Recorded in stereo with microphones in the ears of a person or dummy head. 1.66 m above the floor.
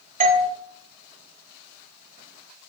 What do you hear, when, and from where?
0.2 s a doorbell: 35° right (ahead or behind), 0.8 m